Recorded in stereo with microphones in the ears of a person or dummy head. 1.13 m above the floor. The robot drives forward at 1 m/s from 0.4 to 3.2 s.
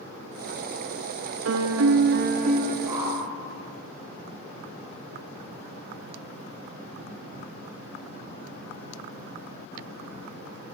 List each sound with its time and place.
1.4 s a piano: 80° right, 1.0 m; by 2.8 s 40° right (ahead or behind), 1.6 m
2.9 s a whoosh: 15° right (ahead or behind), 6 m